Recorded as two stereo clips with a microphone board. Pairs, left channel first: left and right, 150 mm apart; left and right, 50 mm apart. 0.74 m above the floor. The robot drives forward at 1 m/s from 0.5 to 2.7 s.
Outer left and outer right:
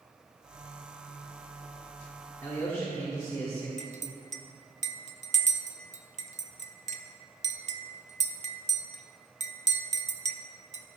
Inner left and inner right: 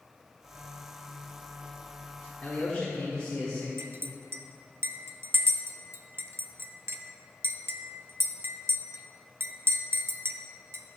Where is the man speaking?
20° left (ahead or behind), 1.5 m.